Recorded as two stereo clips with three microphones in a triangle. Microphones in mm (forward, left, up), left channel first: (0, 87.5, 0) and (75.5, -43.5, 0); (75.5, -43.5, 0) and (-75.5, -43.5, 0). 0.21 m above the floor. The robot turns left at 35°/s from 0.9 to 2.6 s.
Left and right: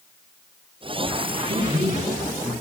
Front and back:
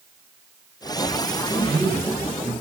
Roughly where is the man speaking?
Right.